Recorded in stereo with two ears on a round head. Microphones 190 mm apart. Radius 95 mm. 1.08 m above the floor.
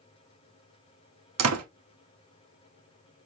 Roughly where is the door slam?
Right.